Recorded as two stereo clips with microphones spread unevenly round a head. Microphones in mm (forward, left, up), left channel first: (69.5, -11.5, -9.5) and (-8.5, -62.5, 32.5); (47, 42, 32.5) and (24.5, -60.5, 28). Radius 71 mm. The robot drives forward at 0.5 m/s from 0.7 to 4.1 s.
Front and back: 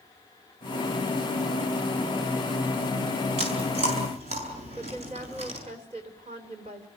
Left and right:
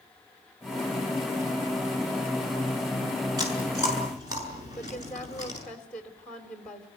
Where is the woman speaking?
160° left, 3 m.